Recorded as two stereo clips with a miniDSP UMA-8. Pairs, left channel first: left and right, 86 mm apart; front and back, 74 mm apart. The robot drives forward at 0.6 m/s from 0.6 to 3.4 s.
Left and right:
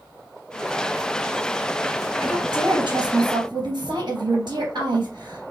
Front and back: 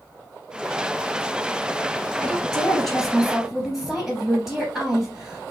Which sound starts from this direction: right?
A woman speaking, at 2.2 s.